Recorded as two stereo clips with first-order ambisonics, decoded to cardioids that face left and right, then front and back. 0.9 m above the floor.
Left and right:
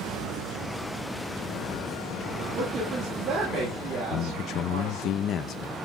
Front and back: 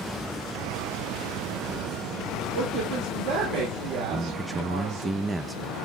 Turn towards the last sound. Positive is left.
turn(degrees=105)